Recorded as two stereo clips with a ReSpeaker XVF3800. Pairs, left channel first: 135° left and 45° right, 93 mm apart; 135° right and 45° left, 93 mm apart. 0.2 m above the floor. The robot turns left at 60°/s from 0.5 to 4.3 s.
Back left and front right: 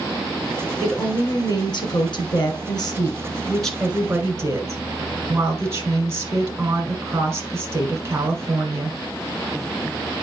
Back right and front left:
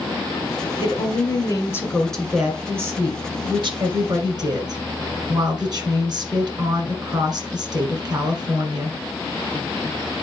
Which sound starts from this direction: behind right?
A woman speaking, at 0.8 s.